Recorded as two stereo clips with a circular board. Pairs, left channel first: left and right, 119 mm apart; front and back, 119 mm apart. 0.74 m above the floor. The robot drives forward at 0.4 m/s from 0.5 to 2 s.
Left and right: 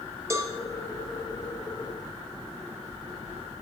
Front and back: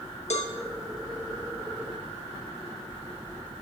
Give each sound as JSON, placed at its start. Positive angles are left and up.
{"t": 0.3, "sound": "a cowbell", "azimuth_deg": -25, "distance_m": 0.6}